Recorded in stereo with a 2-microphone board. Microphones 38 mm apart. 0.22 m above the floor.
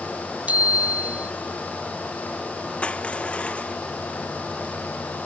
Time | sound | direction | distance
0.5 | a bicycle bell | 40° right (ahead or behind) | ?
2.8 | crushing | 30° left (ahead or behind) | ?